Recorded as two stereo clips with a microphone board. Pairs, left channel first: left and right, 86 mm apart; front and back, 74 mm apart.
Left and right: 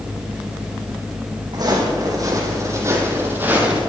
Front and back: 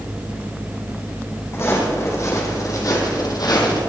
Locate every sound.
1.5 s footsteps: 55° right, 4 m; by 3.8 s 15° right, 3 m